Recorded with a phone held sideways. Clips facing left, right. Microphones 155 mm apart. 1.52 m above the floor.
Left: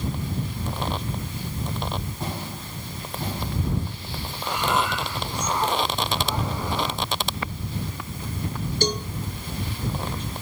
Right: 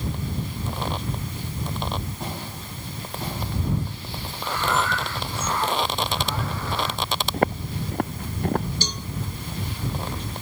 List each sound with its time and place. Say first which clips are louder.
4.4 s breathing: even; 15° left (ahead or behind)
7.3 s footsteps: right 8 dB; 50° right (ahead or behind); by 8.7 s 55° right (ahead or behind)
8.8 s a cowbell: left 9 dB; 50° left (ahead or behind)